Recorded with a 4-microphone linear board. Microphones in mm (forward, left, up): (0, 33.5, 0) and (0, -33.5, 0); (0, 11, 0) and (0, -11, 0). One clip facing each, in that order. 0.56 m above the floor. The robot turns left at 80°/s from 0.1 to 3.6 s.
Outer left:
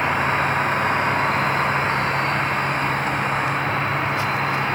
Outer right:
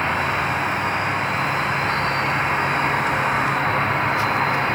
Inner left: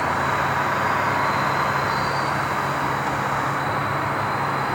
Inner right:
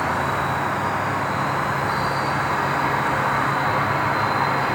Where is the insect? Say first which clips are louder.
Outer left 1 dB, inner left 1 dB; 170° left, 0.9 m; by 4.8 s 110° right, 0.9 m.